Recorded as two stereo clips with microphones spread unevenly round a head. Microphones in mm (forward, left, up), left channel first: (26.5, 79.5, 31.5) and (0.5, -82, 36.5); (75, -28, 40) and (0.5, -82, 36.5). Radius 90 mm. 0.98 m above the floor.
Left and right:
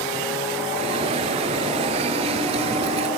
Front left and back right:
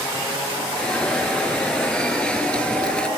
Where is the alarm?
45° right.